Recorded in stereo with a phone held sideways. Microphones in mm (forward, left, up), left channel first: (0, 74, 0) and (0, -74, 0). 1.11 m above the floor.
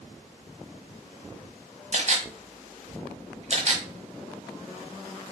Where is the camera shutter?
45° right (ahead or behind), 1.2 m.